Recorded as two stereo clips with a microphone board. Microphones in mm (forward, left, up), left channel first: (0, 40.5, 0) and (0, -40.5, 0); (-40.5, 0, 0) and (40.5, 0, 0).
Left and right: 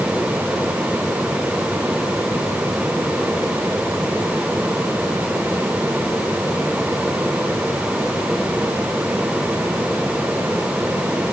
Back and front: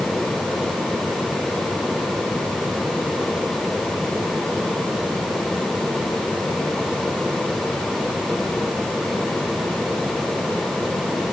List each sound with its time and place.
Only background noise.